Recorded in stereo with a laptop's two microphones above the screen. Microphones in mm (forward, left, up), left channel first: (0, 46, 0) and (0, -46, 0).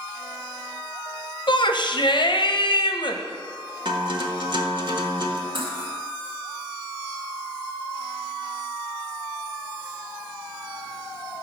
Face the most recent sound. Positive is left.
turn(degrees=-60)  # may be behind; listen again after turning